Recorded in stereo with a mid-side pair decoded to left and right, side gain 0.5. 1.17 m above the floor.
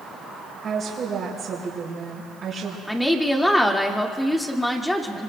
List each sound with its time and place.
0.6 s a woman speaking: 45° right, 4.5 m
2.9 s a woman speaking: 10° left, 1.9 m